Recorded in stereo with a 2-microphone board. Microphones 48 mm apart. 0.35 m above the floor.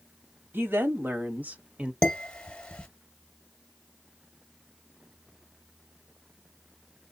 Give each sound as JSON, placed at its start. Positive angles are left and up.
{"t": 0.5, "sound": "a woman speaking", "side_deg": -55, "distance_m": 1.5}
{"t": 2.0, "sound": "dishes clattering", "side_deg": 15, "distance_m": 1.2}